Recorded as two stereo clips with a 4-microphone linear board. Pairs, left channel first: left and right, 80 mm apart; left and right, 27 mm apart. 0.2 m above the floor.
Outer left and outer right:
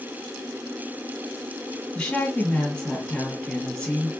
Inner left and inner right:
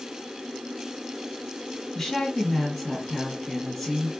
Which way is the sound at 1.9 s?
10° left (ahead or behind).